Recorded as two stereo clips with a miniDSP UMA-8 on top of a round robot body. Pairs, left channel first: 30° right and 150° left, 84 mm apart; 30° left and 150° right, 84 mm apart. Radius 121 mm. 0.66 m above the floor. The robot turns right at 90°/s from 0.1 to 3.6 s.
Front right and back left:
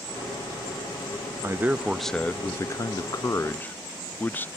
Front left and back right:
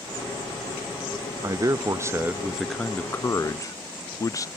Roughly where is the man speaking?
Behind.